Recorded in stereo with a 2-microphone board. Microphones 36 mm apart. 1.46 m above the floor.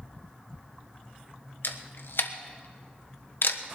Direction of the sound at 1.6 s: 70° left (ahead or behind).